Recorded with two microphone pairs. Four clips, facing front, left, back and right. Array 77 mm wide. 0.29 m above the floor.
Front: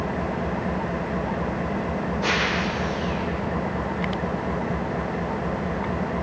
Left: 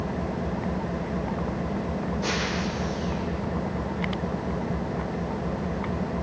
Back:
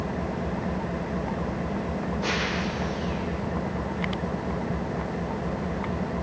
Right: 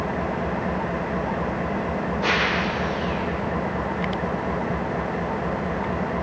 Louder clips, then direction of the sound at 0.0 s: Right 4 dB, front 3 dB; 60° right.